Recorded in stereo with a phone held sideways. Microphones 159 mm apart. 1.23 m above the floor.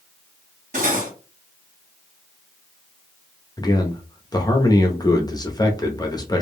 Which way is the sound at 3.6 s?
25° left (ahead or behind).